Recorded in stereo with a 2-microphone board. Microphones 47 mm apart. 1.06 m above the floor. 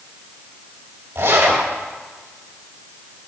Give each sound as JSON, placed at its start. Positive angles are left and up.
{"t": 1.1, "sound": "a zipper", "side_deg": -80, "distance_m": 4.0}